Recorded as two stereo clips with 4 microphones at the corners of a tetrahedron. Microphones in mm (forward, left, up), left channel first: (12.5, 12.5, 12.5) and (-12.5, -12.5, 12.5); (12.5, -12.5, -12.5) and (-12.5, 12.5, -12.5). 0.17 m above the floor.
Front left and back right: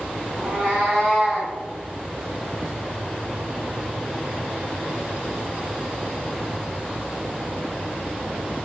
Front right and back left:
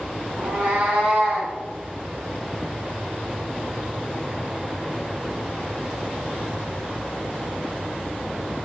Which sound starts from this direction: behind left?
A cat meowing, at 0.4 s.